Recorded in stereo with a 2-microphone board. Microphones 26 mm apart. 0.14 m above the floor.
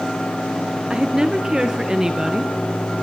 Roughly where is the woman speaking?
Right.